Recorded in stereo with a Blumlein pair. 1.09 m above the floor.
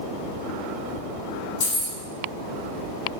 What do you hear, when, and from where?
1.6 s keys jangling: 50° left, 1.4 m